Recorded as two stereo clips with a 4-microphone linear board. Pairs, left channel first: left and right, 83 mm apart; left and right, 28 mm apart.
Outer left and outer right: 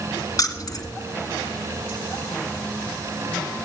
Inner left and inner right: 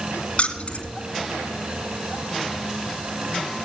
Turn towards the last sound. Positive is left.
turn(degrees=50)  # may be behind; listen again after turning